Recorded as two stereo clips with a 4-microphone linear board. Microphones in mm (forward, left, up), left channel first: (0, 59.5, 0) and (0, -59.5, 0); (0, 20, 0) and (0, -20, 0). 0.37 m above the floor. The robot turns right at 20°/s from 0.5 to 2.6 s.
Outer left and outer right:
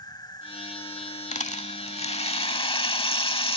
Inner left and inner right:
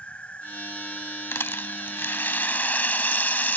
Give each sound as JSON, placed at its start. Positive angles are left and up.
{"t": 0.0, "sound": "an insect", "azimuth_deg": 35}
{"t": 1.3, "sound": "a rattle", "side_deg": 70}